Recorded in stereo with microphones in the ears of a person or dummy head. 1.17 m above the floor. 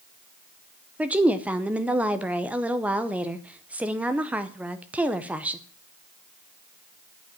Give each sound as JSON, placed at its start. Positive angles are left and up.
{"t": 1.0, "sound": "a woman speaking", "side_deg": -5, "distance_m": 0.7}